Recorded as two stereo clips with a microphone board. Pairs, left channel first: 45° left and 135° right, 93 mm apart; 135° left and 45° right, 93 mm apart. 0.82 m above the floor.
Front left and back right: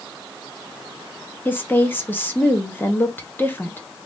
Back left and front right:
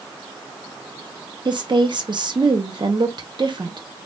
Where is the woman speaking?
20° right, 0.9 m.